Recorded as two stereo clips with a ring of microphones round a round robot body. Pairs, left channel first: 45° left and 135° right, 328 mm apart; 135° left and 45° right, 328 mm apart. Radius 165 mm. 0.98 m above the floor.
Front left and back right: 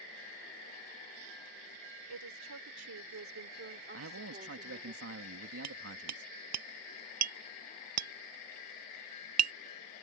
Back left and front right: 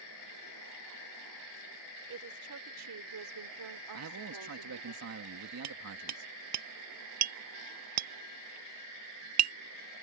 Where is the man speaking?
85° right.